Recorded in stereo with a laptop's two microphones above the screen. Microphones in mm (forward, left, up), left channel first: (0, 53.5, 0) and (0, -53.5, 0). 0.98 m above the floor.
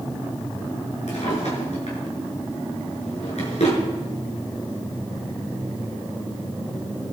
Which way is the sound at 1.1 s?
75° left (ahead or behind).